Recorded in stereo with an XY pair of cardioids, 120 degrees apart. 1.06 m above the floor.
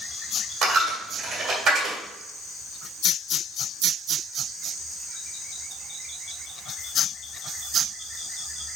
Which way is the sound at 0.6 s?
60° right.